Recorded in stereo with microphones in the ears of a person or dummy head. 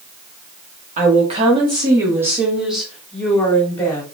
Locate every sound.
1.0 s a woman speaking: 35° right (ahead or behind), 1.6 m; by 4.0 s 15° left (ahead or behind), 2.5 m